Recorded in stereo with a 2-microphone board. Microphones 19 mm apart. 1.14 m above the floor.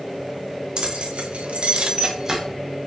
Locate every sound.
0.8 s keys jangling: 55° right (ahead or behind), 0.8 m; by 2.4 s 25° right (ahead or behind), 0.9 m